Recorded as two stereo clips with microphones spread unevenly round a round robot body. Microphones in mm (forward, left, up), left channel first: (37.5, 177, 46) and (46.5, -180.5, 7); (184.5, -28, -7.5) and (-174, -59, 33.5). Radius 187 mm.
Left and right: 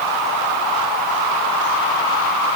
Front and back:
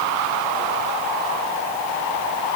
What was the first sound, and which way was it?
Only background noise.